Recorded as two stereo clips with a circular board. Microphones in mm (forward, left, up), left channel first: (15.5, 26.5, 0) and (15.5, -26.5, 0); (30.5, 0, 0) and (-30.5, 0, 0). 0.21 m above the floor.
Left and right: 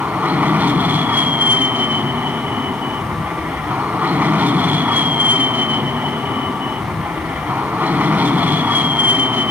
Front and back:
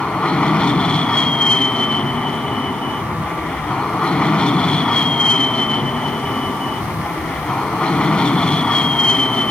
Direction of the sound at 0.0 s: 65° right.